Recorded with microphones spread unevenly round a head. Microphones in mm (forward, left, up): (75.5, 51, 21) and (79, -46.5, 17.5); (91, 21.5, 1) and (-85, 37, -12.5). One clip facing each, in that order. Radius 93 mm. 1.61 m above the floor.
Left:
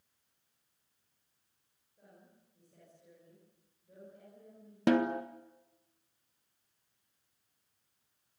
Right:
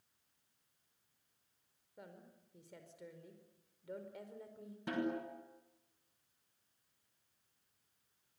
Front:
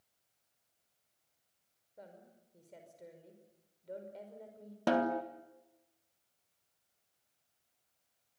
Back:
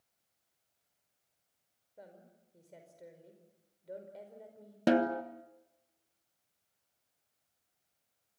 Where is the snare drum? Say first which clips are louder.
Left 10 dB, back 3 dB; 110° left, 1.6 m.